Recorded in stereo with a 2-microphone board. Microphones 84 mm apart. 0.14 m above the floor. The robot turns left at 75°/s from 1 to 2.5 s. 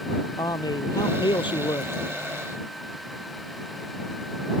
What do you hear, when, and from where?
0.4 s a man speaking: 120° left; by 1.9 s 50° left